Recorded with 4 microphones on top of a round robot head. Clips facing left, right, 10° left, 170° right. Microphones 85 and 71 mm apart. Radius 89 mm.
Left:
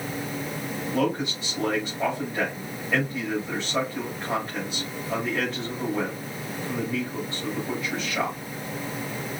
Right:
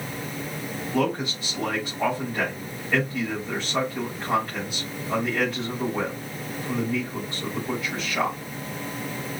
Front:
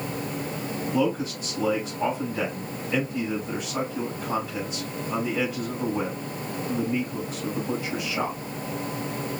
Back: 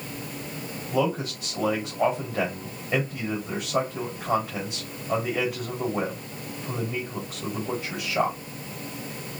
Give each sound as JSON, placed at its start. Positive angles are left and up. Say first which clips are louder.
{"t": 0.9, "sound": "a man speaking", "louder": "right 1 dB, even", "azimuth_deg": -175, "distance_m": 4.0}